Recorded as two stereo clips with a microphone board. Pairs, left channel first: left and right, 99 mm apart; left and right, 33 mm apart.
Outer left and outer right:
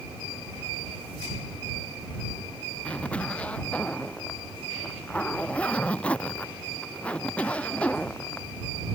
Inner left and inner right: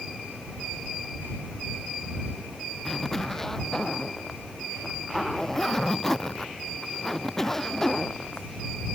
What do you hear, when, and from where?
2.9 s a zipper: 15° left (ahead or behind)